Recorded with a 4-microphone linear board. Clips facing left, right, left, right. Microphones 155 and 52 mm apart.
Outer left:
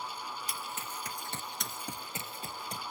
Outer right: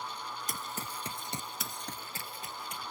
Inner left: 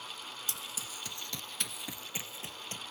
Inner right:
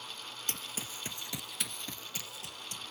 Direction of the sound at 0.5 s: 45° right (ahead or behind).